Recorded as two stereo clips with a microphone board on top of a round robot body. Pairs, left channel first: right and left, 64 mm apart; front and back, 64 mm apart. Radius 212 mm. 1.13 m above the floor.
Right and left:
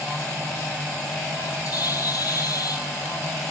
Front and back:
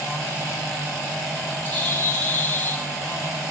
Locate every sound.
1.6 s a bird: 65° right, 1.1 m